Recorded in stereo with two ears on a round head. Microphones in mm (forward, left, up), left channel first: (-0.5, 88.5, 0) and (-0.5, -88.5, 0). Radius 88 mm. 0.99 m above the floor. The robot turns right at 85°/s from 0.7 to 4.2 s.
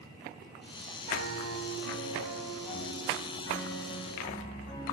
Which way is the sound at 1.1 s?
105° right.